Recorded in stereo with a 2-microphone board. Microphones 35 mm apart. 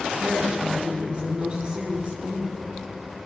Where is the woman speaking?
25° right (ahead or behind), 4 m.